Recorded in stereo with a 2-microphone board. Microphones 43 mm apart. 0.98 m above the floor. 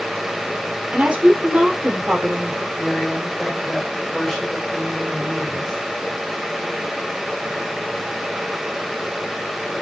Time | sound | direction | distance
0.9 | a woman speaking | 30° right (ahead or behind) | 2.5 m
2.8 | a woman speaking | 10° left (ahead or behind) | 4 m